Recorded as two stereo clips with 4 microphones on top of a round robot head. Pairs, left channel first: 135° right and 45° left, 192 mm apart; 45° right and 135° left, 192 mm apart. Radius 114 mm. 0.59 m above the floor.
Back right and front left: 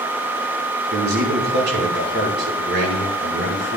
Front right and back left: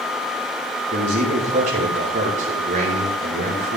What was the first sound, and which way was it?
A man speaking, 80° left.